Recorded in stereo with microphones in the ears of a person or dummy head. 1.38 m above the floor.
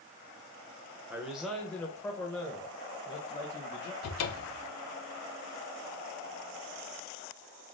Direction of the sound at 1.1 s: 10° right (ahead or behind).